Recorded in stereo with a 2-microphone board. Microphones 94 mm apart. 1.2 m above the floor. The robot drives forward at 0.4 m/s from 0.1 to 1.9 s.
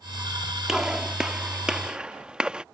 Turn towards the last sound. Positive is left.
turn(degrees=-10)  # may be behind; listen again after turning